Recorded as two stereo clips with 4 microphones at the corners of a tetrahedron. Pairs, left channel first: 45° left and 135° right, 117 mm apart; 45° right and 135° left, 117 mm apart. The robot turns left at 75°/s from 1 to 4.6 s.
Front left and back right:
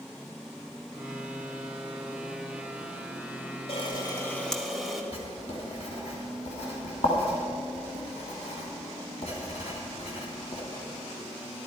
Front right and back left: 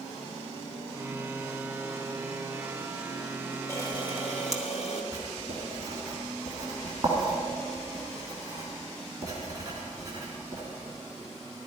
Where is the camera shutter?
20° left, 1.5 m; by 5.0 s 45° right, 1.5 m.